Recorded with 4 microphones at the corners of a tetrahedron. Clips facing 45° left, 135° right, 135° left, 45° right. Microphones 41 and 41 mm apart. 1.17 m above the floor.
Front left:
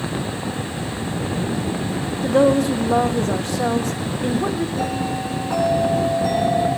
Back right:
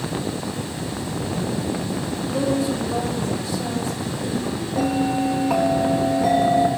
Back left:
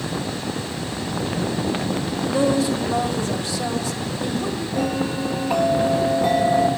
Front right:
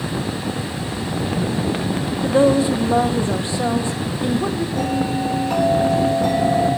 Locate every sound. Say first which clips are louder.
2.2 s a woman speaking: front left 7 dB, front right 5 dB; 20° left, 0.8 m
4.8 s a bell: back right 3 dB, even; 145° right, 2 m